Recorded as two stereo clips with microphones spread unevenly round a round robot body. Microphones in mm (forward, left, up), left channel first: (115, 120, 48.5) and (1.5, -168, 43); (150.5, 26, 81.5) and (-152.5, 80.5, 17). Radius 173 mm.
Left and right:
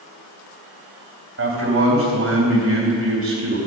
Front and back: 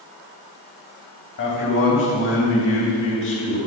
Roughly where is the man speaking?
Ahead right.